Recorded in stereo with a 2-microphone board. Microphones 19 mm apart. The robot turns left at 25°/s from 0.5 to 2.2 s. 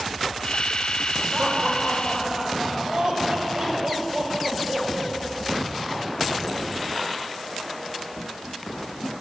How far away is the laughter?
About 3 m.